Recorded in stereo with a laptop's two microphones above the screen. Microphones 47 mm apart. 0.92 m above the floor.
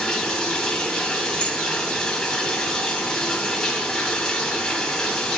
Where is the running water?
10° left (ahead or behind), 0.7 m.